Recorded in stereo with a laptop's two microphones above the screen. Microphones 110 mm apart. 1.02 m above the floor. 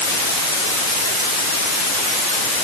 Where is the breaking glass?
I don't hear breaking glass.